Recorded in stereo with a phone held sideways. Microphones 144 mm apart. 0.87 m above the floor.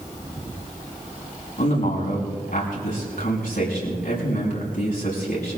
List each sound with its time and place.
1.6 s a man speaking: 85° left, 6 m